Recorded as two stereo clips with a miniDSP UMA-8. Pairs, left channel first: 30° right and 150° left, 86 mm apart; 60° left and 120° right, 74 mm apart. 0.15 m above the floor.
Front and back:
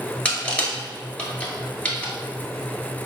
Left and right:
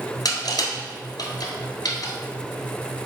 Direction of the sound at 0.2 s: 45° left.